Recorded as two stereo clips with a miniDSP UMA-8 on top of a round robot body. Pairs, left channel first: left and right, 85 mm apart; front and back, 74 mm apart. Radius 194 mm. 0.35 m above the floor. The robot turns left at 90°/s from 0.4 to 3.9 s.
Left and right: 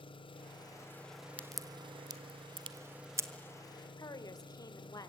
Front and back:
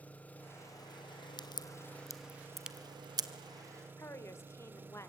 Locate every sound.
0.0 s an engine running: 70° left, 1.2 m; by 5.1 s 115° left, 1.2 m
1.4 s a crack: 15° left, 1.4 m; by 3.3 s 155° right, 1.4 m
4.0 s a woman speaking: 50° left, 2 m